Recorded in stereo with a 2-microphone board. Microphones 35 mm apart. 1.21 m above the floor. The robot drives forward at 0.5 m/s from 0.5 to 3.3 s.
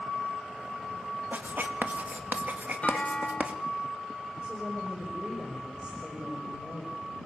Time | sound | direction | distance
1.3 | writing | 60° right (ahead or behind) | 1.8 m
2.8 | a clunk | 35° left (ahead or behind) | 0.6 m
4.4 | a woman speaking | 25° right (ahead or behind) | 6 m